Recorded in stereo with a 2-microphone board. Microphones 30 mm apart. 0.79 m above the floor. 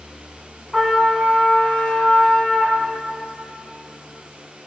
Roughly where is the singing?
No singing in this recording.